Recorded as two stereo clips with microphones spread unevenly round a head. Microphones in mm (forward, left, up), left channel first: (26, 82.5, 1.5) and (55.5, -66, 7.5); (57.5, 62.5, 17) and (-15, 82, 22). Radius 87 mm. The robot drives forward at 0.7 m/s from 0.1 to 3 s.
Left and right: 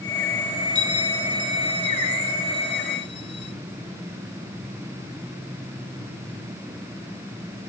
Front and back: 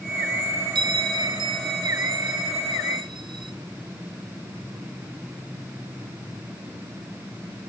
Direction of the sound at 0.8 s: 155° left.